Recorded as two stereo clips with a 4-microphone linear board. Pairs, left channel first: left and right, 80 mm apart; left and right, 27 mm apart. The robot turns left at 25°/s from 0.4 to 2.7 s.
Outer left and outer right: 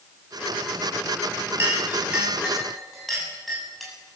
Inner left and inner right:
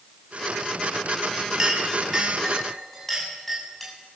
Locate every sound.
1.6 s a clink: 25° right (ahead or behind), 7 m; by 3.9 s centre (ahead or behind), 7 m